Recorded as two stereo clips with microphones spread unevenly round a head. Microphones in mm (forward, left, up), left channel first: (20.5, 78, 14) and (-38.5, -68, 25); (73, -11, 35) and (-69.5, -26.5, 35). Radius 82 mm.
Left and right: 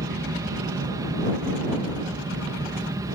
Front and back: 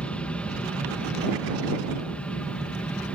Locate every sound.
0.0 s an aircraft: 65° right